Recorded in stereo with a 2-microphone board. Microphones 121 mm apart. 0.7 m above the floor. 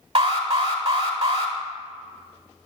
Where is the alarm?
50° right (ahead or behind), 1.4 m.